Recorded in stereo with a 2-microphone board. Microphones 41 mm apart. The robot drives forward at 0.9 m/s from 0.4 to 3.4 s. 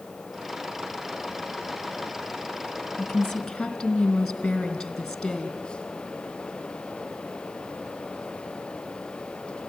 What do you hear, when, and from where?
3.0 s a woman speaking: 5° left (ahead or behind), 1.9 m